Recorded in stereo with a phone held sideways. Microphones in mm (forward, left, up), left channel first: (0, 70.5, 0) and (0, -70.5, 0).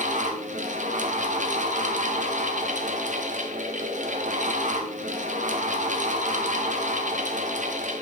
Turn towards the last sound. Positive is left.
turn(degrees=-60)  # may be behind; listen again after turning